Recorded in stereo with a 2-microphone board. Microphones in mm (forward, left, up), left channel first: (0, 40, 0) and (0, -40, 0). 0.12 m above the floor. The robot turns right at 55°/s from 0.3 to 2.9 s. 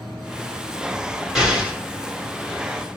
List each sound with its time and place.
1.4 s an explosion: 10° right (ahead or behind), 1.7 m; by 1.8 s 20° right (ahead or behind), 1.7 m